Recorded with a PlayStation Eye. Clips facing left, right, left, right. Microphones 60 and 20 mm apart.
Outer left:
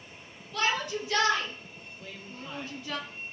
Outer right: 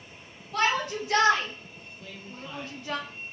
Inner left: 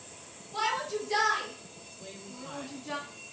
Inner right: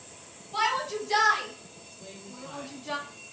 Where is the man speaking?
15° left (ahead or behind), 1.5 m.